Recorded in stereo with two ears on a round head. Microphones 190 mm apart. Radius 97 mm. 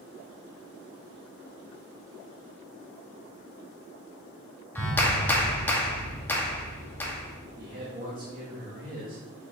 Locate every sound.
4.8 s a clap: 10° left (ahead or behind), 1.3 m
7.6 s a man speaking: 45° right (ahead or behind), 1.6 m